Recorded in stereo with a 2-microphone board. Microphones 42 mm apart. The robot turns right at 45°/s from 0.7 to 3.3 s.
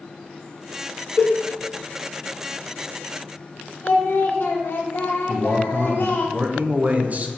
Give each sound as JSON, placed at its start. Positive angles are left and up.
{"t": 1.2, "sound": "a cowbell", "side_deg": 85, "distance_m": 0.5}
{"t": 3.8, "sound": "singing", "side_deg": 60, "distance_m": 0.6}
{"t": 5.3, "sound": "a man speaking", "side_deg": -40, "distance_m": 0.5}